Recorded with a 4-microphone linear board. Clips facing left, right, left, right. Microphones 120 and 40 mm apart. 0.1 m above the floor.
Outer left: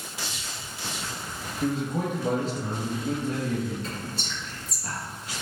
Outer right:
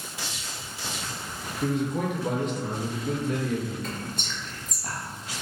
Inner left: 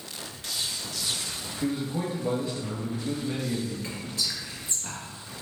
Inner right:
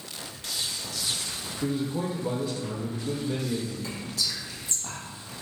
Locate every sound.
1.6 s a man speaking: 35° left (ahead or behind), 1.3 m
3.8 s whispering: 35° left (ahead or behind), 1.6 m